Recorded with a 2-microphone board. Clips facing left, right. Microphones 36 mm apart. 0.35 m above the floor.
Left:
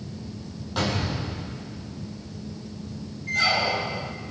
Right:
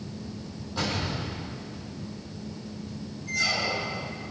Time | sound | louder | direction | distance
0.8 | a gunshot | left 3 dB | 60° left (ahead or behind) | 7 m
3.3 | a squeak | left 4 dB | 40° left (ahead or behind) | 1.6 m